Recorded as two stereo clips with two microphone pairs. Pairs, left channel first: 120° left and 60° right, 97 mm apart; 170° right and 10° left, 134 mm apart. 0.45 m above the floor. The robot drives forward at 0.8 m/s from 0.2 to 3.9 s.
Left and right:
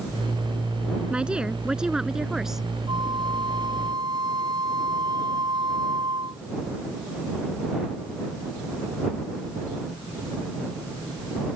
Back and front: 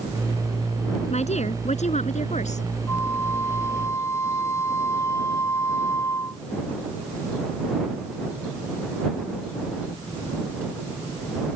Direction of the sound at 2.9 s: 100° right.